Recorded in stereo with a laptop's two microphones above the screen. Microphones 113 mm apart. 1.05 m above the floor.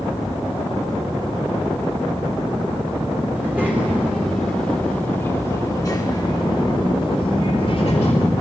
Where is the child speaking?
20° right (ahead or behind), 1.7 m; by 8.3 s 70° left (ahead or behind), 2 m.